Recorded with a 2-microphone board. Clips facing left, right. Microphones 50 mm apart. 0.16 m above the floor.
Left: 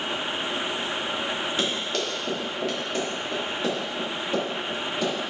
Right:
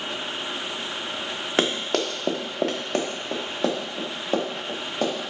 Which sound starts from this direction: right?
Running footsteps, at 1.6 s.